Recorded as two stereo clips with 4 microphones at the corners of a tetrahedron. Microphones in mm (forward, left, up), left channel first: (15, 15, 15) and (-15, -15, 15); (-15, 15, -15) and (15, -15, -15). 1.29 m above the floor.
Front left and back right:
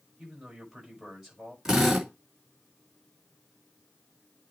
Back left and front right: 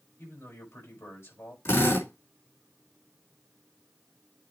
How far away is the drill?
About 4 m.